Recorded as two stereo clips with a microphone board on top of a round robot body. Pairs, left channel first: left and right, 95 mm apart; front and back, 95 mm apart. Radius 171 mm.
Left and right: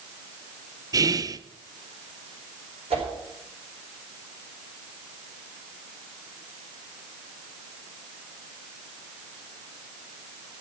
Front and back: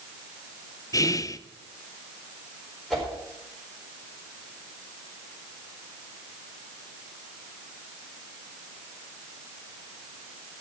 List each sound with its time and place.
0.9 s whispering: 45° right, 0.7 m
2.9 s a whoosh: 85° right, 6 m